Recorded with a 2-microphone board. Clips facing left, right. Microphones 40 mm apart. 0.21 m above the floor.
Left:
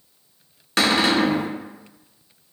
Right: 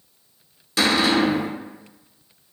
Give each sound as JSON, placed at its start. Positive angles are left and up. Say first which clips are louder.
{"t": 0.8, "sound": "a cupboard door", "louder": "even", "side_deg": 55, "distance_m": 0.7}